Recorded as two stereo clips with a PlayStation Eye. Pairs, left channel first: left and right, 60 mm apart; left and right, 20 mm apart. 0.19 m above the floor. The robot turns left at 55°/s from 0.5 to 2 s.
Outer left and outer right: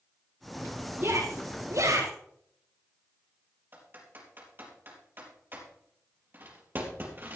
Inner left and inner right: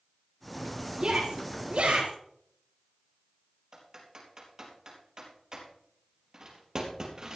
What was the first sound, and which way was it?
A shout, 30° right (ahead or behind).